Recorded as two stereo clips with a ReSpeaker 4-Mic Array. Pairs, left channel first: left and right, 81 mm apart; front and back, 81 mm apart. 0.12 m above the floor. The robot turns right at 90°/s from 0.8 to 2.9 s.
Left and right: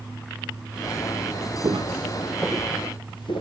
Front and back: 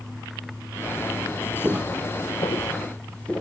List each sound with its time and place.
1.6 s footsteps: 115° right, 0.9 m; by 3.4 s 80° left, 1.9 m